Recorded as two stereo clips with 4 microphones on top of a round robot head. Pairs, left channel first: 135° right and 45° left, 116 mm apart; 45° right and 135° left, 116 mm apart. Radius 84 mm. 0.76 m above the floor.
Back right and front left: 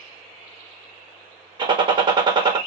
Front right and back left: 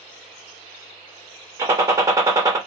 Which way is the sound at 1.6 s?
80° left.